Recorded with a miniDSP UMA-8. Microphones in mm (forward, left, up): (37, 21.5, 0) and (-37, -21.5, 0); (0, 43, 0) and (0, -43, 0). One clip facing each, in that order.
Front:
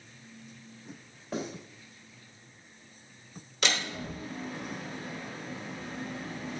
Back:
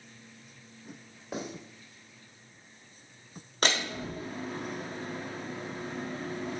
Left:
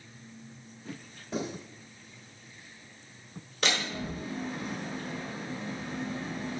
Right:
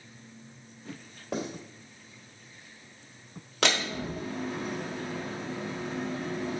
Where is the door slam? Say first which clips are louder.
Back 2 dB, right 3 dB; 100° right, 1.4 m.